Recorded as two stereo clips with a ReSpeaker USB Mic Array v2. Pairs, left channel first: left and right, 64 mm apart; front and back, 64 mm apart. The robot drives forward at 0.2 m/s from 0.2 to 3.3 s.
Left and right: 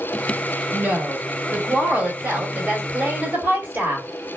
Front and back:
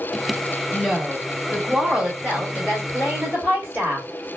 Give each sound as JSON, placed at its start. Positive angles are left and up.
{"t": 0.7, "sound": "a woman speaking", "azimuth_deg": -100, "distance_m": 1.4}